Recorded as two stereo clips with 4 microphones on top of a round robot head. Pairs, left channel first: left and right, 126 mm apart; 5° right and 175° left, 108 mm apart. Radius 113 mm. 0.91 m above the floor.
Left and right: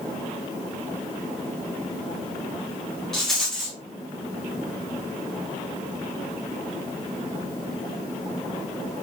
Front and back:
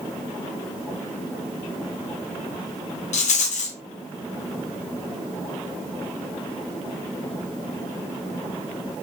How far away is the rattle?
About 0.6 m.